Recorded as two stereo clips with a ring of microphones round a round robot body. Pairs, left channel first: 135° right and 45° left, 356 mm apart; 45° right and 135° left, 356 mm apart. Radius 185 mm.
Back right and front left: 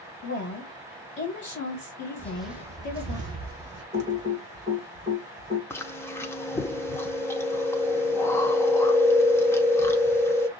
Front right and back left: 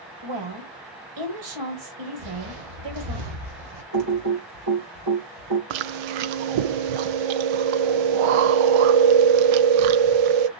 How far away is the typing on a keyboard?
About 2.5 m.